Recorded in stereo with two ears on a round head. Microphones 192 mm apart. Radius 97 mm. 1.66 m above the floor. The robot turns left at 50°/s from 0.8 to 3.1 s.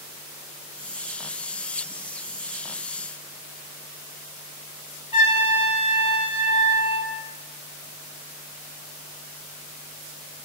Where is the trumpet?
25° left (ahead or behind), 0.5 m.